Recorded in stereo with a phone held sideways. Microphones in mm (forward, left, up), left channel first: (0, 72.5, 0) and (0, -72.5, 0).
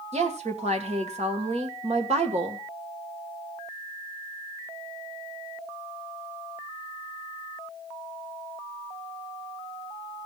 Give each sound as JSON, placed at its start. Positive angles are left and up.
{"t": 0.1, "sound": "a woman speaking", "side_deg": -50, "distance_m": 1.8}